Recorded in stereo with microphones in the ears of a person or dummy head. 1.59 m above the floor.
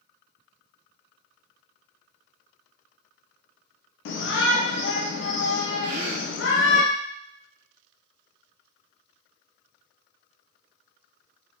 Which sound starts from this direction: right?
A gasp, at 5.8 s.